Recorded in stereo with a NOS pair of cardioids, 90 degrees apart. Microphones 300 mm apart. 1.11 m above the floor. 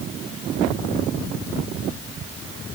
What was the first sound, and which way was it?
Only background noise.